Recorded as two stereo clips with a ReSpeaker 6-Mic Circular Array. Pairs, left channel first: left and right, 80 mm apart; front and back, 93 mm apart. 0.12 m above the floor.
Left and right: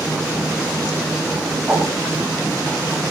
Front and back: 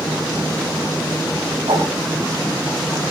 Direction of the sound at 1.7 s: 170° right.